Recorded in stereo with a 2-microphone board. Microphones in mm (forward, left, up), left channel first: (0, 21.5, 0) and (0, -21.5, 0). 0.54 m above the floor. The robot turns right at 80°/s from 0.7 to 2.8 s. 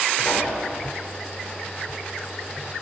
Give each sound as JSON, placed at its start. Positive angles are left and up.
{"t": 0.2, "sound": "a pop", "side_deg": 55, "distance_m": 9.5}